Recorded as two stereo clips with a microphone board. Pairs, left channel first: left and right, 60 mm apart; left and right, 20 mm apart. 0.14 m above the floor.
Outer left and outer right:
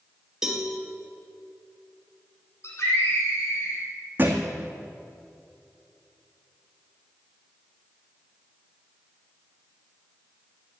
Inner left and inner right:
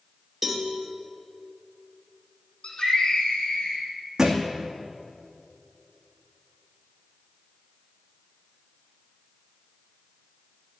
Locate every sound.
0.4 s a cowbell: 5° right (ahead or behind), 2.5 m
2.6 s a scream: 50° left (ahead or behind), 6 m
4.2 s a thud: 30° right (ahead or behind), 2 m